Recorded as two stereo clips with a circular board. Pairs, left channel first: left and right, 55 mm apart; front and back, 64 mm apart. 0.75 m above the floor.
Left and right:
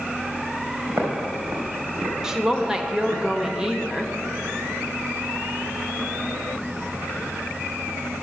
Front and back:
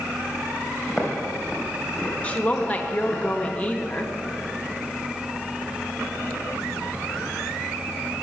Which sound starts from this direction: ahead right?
A woman speaking, at 2.2 s.